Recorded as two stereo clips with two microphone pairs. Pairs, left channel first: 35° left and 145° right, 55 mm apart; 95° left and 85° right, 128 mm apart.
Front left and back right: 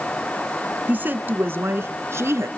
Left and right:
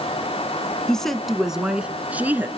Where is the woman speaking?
Straight behind, 1.5 m; by 2.5 s 155° right, 2 m.